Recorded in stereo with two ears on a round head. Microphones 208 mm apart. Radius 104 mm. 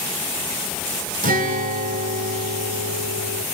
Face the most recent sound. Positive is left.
turn(degrees=-40)  # may be behind; listen again after turning